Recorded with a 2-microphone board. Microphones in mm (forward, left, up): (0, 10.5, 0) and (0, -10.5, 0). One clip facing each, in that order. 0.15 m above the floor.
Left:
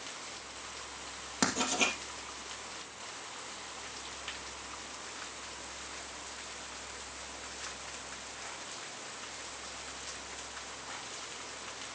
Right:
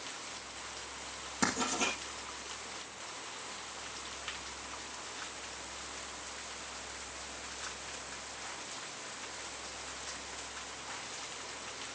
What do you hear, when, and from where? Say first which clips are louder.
1.4 s writing: left 2 dB; 35° left (ahead or behind), 2 m